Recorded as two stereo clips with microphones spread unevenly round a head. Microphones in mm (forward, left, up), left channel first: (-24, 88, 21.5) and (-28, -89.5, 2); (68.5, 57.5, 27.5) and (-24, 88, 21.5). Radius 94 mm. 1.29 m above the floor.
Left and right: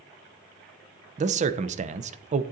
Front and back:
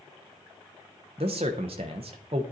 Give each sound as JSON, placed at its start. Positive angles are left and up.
{"t": 1.2, "sound": "a man speaking", "azimuth_deg": -145, "distance_m": 0.6}